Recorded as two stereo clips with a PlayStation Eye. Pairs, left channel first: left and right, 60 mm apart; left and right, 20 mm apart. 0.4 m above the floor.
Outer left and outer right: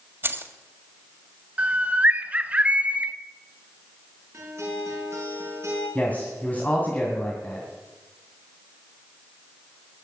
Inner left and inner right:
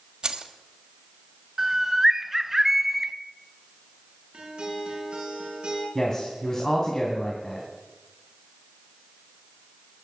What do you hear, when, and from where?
0.2 s keys jangling: 40° right (ahead or behind), 1.5 m
1.6 s a bird: 25° right (ahead or behind), 0.8 m
4.3 s a guitar: 50° right (ahead or behind), 6.5 m
6.0 s a man speaking: 30° left (ahead or behind), 3 m